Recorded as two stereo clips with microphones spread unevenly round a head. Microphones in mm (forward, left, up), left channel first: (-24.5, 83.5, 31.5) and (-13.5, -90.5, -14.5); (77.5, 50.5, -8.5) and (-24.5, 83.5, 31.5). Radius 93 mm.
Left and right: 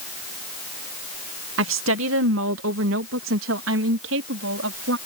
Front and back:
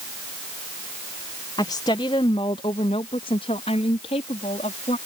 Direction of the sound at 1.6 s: 95° right.